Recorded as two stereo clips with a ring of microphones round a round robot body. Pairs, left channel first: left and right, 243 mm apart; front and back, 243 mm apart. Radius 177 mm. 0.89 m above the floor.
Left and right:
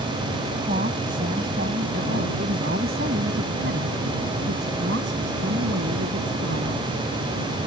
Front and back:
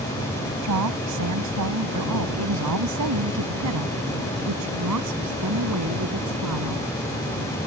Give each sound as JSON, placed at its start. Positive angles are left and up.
{"t": 0.6, "sound": "a woman speaking", "azimuth_deg": -160}